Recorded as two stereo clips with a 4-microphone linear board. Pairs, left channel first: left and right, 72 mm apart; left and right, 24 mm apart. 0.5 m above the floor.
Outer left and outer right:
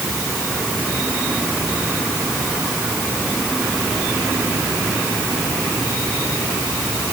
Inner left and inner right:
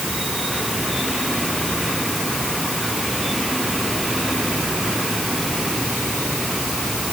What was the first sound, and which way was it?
Only background noise.